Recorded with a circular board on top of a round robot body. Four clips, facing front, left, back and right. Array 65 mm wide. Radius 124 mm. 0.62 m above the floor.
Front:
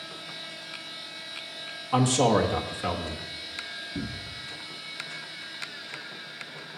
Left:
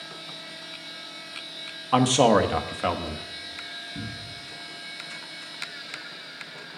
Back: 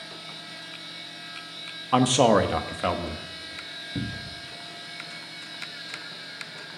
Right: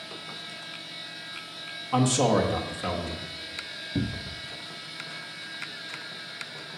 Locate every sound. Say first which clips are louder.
1.9 s a man speaking: left 4 dB, back 3 dB; 135° left, 1.2 m
4.0 s a cupboard door: right 10 dB, back 4 dB; 110° right, 0.7 m